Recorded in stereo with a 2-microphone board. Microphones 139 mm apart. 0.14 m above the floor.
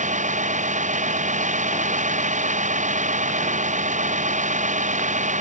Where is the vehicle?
65° right (ahead or behind).